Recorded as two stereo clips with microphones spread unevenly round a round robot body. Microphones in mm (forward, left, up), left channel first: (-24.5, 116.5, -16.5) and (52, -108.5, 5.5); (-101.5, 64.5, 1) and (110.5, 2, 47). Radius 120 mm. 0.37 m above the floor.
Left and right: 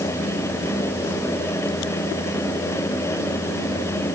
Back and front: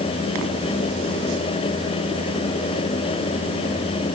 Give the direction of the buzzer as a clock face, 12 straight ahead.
No buzzer in this recording.